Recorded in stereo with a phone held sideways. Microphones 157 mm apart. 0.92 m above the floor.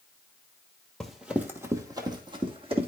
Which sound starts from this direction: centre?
Running footsteps, at 1.0 s.